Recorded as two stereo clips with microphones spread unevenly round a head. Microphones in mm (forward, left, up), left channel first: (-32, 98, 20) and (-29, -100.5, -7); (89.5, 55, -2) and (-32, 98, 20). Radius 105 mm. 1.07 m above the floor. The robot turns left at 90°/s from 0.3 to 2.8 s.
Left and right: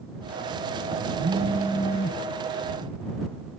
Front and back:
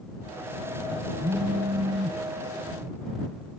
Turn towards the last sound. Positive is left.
turn(degrees=80)